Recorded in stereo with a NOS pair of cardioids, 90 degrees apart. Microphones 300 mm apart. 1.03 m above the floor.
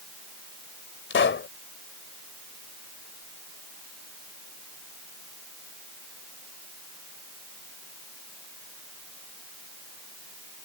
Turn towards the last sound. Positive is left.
turn(degrees=40)